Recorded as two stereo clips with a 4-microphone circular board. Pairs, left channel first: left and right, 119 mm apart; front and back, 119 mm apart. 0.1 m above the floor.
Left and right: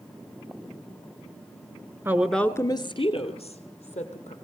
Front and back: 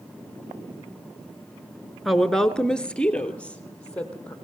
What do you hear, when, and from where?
2.0 s a woman speaking: 90° right, 1.1 m; by 4.3 s 80° left, 3.5 m